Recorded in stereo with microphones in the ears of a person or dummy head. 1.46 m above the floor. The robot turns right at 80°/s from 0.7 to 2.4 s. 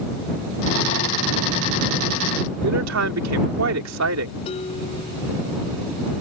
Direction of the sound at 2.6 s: 75° right (ahead or behind).